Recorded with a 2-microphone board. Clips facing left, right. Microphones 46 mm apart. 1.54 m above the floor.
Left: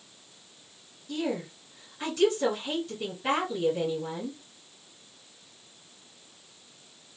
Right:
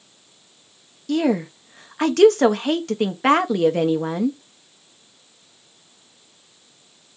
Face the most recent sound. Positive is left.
turn(degrees=-75)  # may be behind; listen again after turning